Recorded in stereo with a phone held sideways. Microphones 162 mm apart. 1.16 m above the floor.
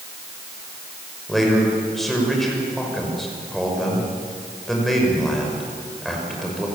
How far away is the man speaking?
About 6 m.